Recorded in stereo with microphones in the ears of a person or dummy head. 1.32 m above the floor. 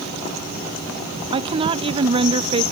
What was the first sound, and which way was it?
A woman speaking, 30° right (ahead or behind).